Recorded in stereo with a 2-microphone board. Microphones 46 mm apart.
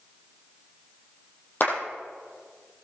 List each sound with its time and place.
1.6 s a clap: 50° left (ahead or behind), 6 m